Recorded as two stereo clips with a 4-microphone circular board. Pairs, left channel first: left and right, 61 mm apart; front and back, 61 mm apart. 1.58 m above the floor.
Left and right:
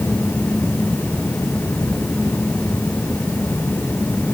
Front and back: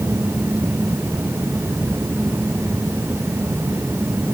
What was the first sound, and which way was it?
Only background noise.